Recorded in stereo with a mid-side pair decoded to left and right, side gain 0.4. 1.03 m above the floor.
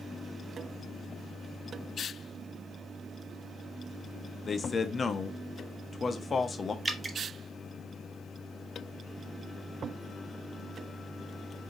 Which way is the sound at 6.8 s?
20° right.